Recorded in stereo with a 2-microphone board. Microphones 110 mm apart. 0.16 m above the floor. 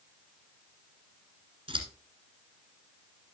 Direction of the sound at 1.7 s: 50° right (ahead or behind).